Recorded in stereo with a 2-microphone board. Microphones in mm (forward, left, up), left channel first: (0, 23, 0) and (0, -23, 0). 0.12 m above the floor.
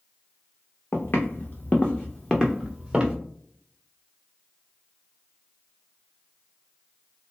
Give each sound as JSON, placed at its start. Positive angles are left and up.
{"t": 0.9, "sound": "footsteps", "side_deg": 60, "distance_m": 0.9}